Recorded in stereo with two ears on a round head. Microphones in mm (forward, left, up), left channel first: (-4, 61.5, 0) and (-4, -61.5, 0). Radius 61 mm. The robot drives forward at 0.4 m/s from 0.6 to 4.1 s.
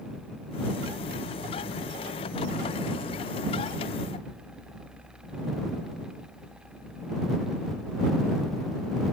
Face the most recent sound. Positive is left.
No sound to turn to.